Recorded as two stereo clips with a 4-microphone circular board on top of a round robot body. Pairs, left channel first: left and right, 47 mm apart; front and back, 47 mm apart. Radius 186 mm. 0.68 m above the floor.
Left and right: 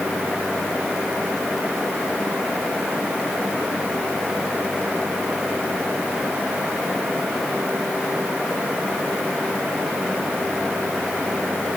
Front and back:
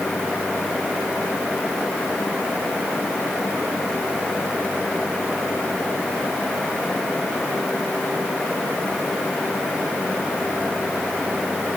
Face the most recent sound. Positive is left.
No sound to turn to.